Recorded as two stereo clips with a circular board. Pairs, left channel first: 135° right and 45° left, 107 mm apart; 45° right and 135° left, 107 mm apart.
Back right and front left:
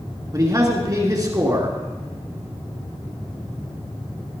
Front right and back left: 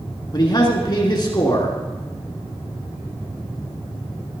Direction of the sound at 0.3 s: 5° right.